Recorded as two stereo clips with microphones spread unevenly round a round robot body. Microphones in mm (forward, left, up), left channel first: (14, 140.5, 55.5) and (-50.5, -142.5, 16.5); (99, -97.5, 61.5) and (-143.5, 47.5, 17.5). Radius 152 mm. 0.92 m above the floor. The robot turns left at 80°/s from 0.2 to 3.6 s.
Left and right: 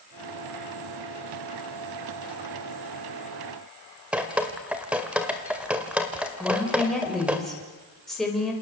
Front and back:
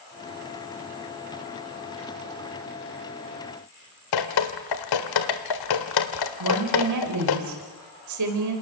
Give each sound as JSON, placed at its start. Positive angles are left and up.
{"t": 4.1, "sound": "dripping", "azimuth_deg": -15, "distance_m": 1.8}
{"t": 6.4, "sound": "a woman speaking", "azimuth_deg": 165, "distance_m": 4.5}